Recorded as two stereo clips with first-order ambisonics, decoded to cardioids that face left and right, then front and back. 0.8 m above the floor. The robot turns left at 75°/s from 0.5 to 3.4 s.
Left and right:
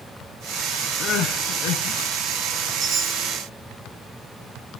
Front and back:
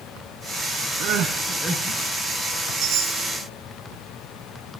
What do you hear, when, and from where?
1.0 s crying: 150° left, 1.4 m; by 2.1 s 70° left, 1.4 m
2.8 s a chime: 140° right, 7.5 m; by 3.3 s straight behind, 7.5 m